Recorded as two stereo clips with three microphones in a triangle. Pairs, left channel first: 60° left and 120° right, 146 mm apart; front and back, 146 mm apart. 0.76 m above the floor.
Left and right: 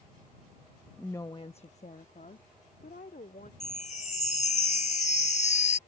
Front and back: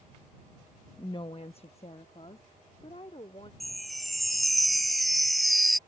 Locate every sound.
1.0 s a woman speaking: 20° right; by 3.5 s 50° left
3.6 s a chime: 90° left